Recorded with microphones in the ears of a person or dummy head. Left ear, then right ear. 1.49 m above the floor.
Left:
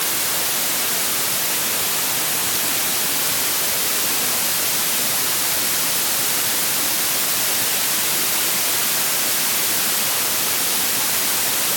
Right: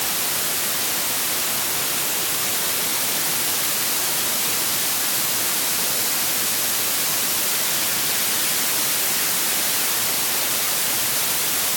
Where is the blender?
No blender in this recording.